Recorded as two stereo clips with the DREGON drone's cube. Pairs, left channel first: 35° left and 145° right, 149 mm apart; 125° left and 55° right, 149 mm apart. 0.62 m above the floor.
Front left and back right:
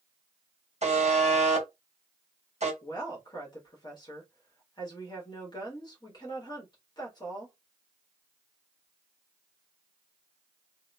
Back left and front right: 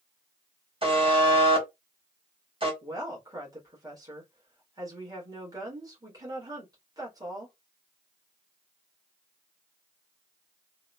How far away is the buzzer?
About 1.1 m.